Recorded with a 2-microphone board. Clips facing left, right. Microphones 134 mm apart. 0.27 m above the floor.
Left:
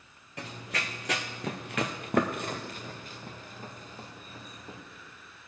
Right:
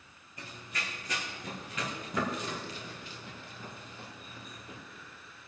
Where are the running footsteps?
75° left (ahead or behind), 1.1 m; by 4.8 s 35° left (ahead or behind), 2.5 m.